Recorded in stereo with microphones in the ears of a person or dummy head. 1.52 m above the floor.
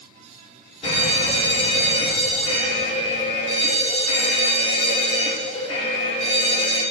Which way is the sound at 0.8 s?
40° left (ahead or behind).